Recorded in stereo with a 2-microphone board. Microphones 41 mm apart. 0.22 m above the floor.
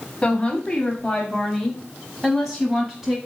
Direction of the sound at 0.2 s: 20° left (ahead or behind).